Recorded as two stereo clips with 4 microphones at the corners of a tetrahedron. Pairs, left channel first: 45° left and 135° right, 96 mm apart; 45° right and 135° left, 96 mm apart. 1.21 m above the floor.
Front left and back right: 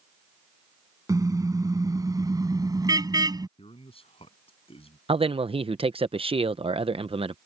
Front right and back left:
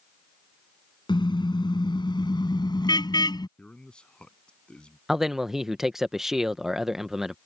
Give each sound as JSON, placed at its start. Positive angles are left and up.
{"t": 1.1, "sound": "a car horn", "azimuth_deg": -80}
{"t": 3.6, "sound": "a man speaking", "azimuth_deg": 35}
{"t": 5.1, "sound": "a man speaking", "azimuth_deg": -140}